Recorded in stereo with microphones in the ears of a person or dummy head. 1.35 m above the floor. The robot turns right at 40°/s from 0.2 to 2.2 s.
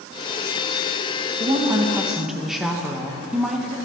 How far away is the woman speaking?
About 1.0 m.